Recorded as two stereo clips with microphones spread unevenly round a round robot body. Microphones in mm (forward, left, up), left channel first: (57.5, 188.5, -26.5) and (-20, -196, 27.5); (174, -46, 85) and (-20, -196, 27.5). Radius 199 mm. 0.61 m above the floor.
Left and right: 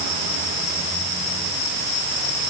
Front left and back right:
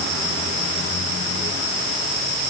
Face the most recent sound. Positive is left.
No sound to turn to.